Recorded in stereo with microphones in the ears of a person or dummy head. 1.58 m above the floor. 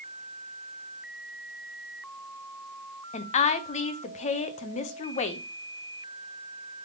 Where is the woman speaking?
40° left (ahead or behind), 0.8 m.